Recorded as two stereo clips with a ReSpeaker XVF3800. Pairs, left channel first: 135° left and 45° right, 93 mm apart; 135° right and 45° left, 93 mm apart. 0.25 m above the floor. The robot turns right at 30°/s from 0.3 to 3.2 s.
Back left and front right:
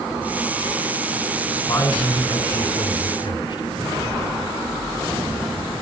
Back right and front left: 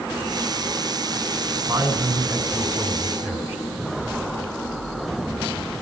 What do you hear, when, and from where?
1.7 s a man speaking: 105° left, 2 m; by 3.6 s 150° left, 2 m